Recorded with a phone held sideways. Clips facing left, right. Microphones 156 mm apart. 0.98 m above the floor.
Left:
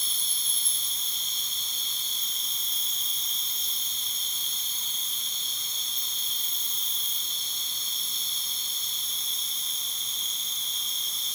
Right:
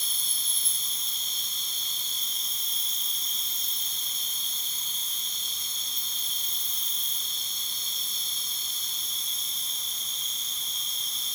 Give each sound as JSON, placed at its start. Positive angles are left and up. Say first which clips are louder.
{"t": 0.0, "sound": "an insect", "louder": "left 1 dB", "side_deg": -45, "distance_m": 4.0}